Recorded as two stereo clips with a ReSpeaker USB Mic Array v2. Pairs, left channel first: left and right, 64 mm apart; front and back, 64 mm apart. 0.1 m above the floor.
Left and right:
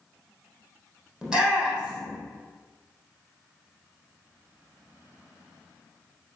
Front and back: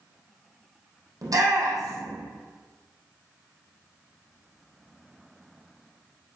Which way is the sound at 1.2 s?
170° right.